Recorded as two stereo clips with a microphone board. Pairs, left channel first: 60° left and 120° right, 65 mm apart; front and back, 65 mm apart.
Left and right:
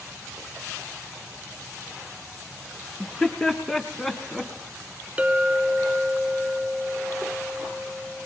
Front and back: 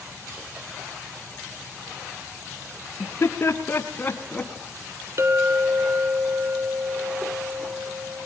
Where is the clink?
Straight behind, 1.2 m.